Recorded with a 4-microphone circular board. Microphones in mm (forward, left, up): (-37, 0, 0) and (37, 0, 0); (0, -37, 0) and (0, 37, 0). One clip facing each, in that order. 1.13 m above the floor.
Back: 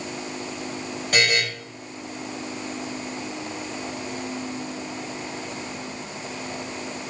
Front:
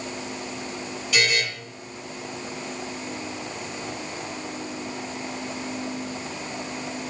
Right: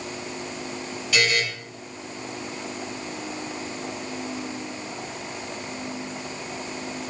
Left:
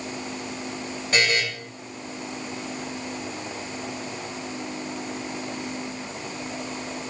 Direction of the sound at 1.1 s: 140° left.